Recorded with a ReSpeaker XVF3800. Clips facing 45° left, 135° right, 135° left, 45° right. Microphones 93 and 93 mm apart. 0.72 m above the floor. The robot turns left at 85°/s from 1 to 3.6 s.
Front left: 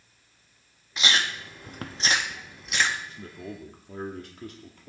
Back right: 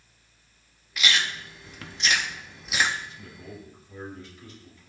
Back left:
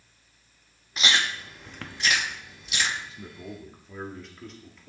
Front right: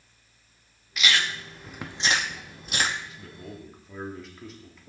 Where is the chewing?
95° left, 0.9 m; by 3.0 s 75° right, 0.9 m.